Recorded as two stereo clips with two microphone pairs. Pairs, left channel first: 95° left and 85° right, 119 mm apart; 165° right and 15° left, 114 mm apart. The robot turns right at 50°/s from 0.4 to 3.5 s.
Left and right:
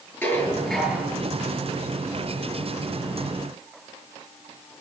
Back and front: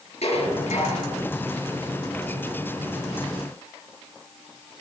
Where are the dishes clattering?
170° left, 8.5 m; by 1.1 s 155° right, 8.5 m.